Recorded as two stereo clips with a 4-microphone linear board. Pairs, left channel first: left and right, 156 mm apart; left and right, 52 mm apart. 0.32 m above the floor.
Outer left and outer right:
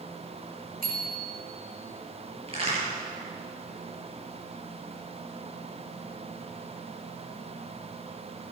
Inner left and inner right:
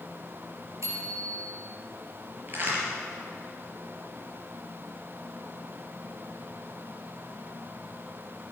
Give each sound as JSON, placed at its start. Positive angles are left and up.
{"t": 0.8, "sound": "a bicycle bell", "side_deg": -70, "distance_m": 4.5}
{"t": 2.5, "sound": "a crack", "side_deg": -40, "distance_m": 6.5}